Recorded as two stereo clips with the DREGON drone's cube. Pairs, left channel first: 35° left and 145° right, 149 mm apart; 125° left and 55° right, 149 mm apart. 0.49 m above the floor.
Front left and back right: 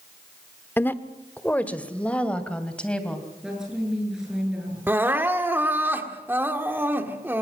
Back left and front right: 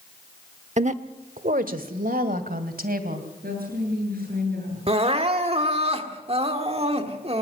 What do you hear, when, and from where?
0.8 s a woman speaking: 40° right, 1.0 m; by 3.3 s 50° right, 3 m
3.4 s a woman speaking: 60° right, 9.5 m
4.9 s crying: 75° right, 1.7 m